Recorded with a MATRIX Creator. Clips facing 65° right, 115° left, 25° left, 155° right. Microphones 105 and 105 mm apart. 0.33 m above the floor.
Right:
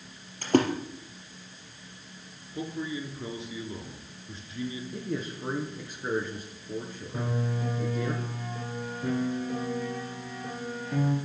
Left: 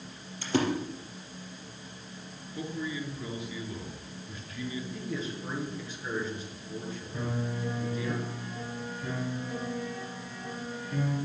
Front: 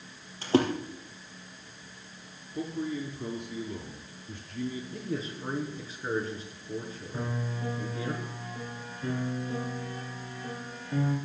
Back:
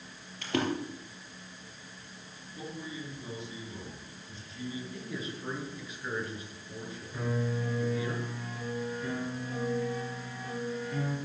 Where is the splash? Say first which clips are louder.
Right 5 dB, front 7 dB; 35° right, 4 m.